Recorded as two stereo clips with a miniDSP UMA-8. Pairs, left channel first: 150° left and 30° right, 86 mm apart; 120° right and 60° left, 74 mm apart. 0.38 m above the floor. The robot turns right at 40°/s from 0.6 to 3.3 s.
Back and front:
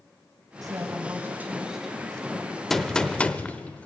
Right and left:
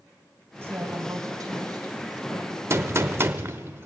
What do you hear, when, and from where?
0.6 s a woman speaking: 5° left, 2.5 m; by 2.6 s 85° left, 2.5 m
2.7 s a gunshot: 65° left, 0.7 m; by 3.9 s 90° left, 0.7 m